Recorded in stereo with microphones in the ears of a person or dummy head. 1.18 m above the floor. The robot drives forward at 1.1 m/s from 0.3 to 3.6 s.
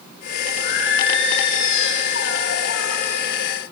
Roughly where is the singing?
Left.